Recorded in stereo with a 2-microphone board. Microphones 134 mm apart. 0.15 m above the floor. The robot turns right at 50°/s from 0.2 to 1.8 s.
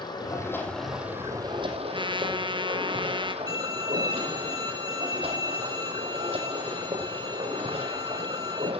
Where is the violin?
30° right (ahead or behind), 4.5 m.